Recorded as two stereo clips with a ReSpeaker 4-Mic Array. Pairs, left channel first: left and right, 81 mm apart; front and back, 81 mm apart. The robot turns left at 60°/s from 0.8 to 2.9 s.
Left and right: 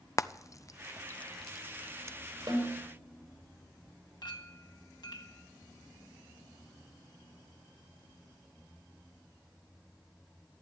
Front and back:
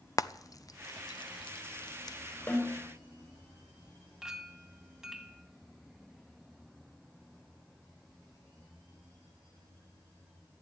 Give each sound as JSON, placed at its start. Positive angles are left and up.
{"t": 0.2, "sound": "frying", "azimuth_deg": 45, "distance_m": 0.6}
{"t": 2.5, "sound": "a snare drum", "azimuth_deg": -65, "distance_m": 5.5}
{"t": 4.2, "sound": "a clink", "azimuth_deg": 100, "distance_m": 1.9}